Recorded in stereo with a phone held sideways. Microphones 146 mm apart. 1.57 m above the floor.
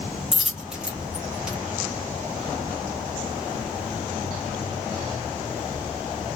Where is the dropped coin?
5° right (ahead or behind), 1.5 m.